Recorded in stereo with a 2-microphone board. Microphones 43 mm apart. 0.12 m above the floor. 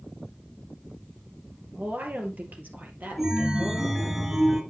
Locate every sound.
1.7 s a woman speaking: 45° right (ahead or behind), 2.5 m
3.2 s a chime: 10° right (ahead or behind), 1.8 m